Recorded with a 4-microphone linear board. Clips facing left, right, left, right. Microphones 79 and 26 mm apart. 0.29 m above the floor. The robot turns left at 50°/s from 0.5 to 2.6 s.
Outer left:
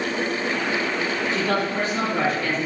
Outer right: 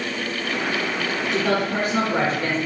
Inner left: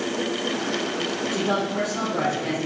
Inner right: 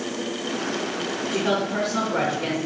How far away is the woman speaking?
About 3.5 m.